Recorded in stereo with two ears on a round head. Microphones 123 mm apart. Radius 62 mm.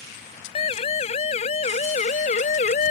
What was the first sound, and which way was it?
A siren, 45° left (ahead or behind).